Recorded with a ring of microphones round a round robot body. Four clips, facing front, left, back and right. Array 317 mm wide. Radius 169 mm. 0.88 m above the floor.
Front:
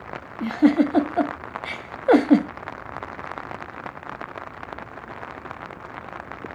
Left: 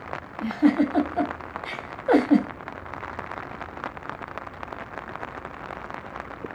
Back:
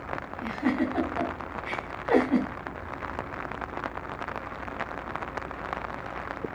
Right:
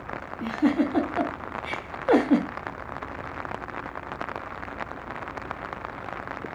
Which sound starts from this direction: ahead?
A giggle, at 0.4 s.